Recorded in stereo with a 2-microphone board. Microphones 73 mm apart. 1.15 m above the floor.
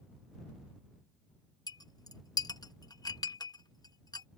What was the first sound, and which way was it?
A clink, 75° left (ahead or behind).